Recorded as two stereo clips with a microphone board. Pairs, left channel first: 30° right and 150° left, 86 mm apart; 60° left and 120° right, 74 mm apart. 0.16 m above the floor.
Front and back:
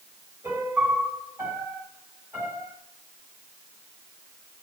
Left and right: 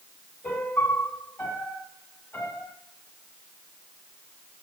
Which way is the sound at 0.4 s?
105° left.